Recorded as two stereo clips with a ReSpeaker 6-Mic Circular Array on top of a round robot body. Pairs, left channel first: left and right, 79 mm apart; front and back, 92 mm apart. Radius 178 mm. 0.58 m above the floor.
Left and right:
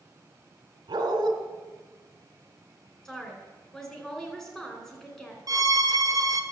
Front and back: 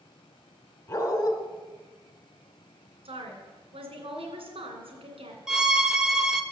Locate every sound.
0.9 s a dog barking: 55° right, 1.8 m
3.0 s a woman speaking: 170° left, 2.5 m
5.5 s a violin: 95° right, 1.1 m